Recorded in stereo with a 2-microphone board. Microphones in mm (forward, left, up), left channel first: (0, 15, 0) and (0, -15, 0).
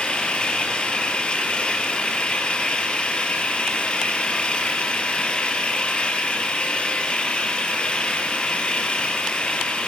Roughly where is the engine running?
Left.